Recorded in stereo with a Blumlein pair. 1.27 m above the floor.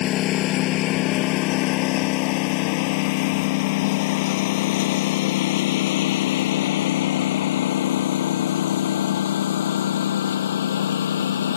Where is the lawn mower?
35° left; by 11.6 s 65° left.